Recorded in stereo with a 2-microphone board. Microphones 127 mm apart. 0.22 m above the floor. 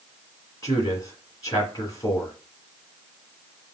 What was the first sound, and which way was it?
A man speaking, 30° left (ahead or behind).